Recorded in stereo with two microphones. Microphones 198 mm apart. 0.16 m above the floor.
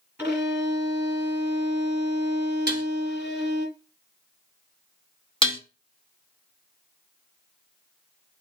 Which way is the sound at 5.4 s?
25° left (ahead or behind).